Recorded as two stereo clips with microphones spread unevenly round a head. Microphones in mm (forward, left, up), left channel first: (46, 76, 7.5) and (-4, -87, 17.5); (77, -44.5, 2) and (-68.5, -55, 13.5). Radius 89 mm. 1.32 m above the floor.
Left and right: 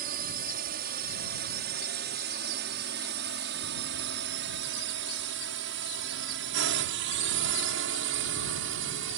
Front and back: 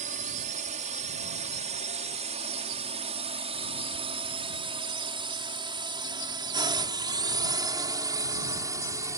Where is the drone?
150° right; by 9.2 s 110° right.